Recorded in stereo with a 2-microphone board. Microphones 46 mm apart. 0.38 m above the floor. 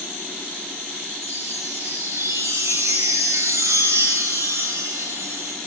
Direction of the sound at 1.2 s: 85° right.